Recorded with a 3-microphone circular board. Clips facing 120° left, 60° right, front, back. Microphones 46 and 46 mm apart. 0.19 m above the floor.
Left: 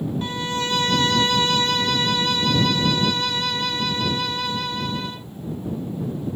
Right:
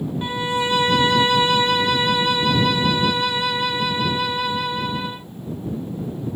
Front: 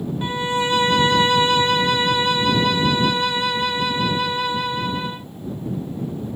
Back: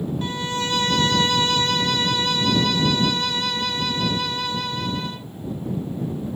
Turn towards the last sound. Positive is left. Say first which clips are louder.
# right 3 dB, front 9 dB
turn(degrees=-20)